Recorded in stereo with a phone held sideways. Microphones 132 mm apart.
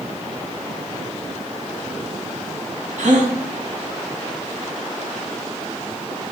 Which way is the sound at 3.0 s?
75° right (ahead or behind).